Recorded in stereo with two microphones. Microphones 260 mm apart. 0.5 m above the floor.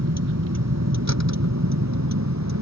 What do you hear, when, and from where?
0.0 s a vehicle: 65° right (ahead or behind); by 2.6 s 75° right (ahead or behind)